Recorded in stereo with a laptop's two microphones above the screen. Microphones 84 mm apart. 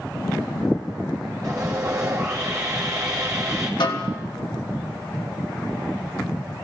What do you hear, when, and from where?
1.4 s sawing: 45° right (ahead or behind), 4.5 m
3.8 s a snare drum: 65° left (ahead or behind), 1.8 m